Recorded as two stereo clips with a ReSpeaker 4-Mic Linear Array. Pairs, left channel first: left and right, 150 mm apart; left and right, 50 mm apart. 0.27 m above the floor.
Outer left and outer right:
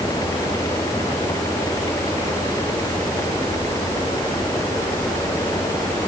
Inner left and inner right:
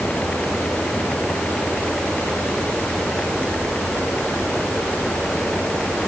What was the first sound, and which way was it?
Only background noise.